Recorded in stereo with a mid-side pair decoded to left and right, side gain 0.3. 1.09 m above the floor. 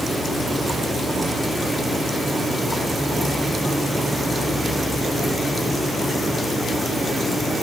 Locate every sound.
Only background noise.